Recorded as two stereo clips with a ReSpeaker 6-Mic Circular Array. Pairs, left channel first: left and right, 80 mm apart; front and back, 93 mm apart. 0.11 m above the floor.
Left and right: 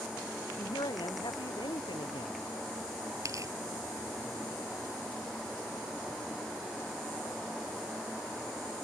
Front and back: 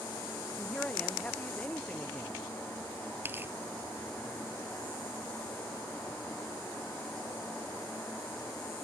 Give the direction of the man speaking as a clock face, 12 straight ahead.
9 o'clock.